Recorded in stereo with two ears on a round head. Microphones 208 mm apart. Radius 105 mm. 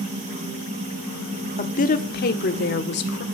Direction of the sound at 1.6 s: 30° left (ahead or behind).